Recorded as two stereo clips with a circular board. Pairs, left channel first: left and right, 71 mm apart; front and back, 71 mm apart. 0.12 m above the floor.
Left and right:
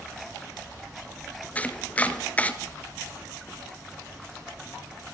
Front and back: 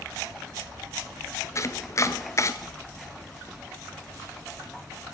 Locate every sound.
1.6 s chopping: 25° left, 0.8 m